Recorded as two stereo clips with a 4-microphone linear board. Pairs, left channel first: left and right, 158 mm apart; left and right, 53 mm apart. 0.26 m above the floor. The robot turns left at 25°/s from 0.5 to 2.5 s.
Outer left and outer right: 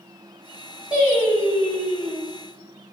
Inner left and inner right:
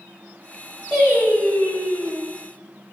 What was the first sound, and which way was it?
Singing, 5° right.